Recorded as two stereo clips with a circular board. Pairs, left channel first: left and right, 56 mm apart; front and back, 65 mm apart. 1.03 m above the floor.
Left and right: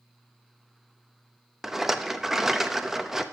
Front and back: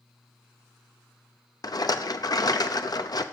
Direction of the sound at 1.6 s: 5° right.